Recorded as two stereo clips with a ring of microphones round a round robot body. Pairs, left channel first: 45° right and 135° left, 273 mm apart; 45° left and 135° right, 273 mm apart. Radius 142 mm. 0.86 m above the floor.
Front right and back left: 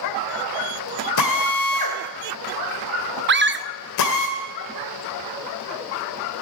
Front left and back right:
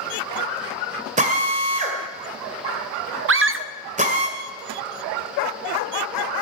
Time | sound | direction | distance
1.2 | a drill | 70° right | 1.9 m
3.3 | a scream | 175° right | 0.7 m